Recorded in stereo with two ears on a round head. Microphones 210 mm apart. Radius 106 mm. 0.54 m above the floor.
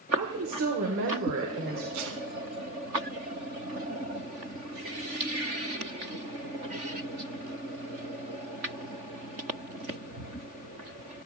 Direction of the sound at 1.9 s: 80° right.